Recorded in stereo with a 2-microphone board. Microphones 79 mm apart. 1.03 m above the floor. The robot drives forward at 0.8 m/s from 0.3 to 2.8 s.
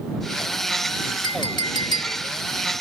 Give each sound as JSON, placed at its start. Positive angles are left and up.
{"t": 1.2, "sound": "a clink", "side_deg": 80}